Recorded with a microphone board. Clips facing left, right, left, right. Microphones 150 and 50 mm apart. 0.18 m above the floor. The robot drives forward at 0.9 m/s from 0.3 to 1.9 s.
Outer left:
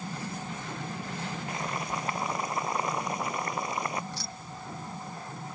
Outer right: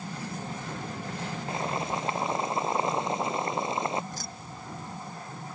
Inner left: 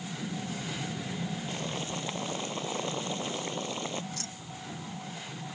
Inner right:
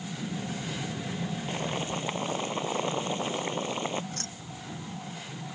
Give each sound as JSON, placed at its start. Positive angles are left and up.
{"t": 1.5, "sound": "boiling", "side_deg": -25}
{"t": 4.1, "sound": "keys jangling", "side_deg": -45}